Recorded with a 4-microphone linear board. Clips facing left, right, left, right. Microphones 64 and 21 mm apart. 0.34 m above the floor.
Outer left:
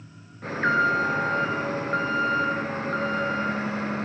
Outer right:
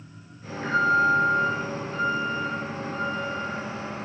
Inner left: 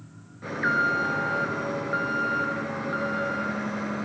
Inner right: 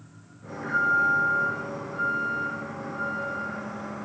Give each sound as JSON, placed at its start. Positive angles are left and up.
{"t": 0.4, "sound": "an alarm", "side_deg": 60, "distance_m": 9.0}